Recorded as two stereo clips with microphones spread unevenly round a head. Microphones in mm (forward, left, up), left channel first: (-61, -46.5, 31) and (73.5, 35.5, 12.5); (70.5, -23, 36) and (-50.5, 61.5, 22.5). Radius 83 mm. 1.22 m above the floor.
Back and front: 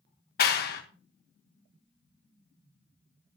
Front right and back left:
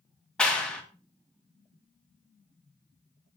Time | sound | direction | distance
0.4 | a clap | 120° right | 2.0 m